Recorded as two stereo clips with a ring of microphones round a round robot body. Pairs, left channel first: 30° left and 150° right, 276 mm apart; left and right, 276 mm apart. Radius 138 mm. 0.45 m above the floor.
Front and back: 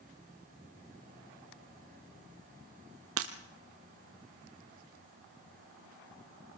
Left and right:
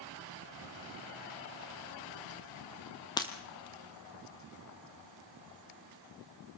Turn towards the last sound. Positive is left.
turn(degrees=165)